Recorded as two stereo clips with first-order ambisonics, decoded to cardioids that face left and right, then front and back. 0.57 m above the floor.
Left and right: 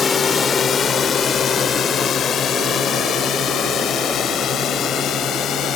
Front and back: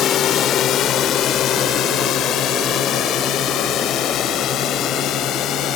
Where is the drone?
35° left; by 5.8 s 40° left.